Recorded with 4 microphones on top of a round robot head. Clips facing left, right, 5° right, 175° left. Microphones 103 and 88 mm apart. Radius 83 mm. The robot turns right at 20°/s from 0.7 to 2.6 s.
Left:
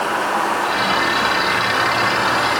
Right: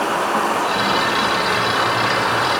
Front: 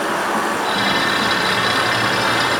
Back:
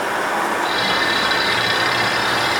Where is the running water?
30° right, 5 m; by 2.6 s 10° left, 5 m.